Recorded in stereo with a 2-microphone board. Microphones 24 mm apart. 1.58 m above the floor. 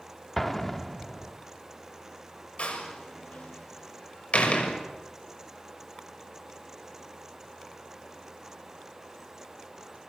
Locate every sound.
0.4 s an explosion: 10° left (ahead or behind), 1.2 m
2.6 s a door slam: 60° left (ahead or behind), 6 m